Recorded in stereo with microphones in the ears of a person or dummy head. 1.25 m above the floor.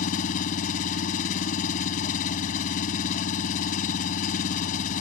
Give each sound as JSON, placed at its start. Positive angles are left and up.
{"t": 0.0, "sound": "an engine running", "side_deg": 50}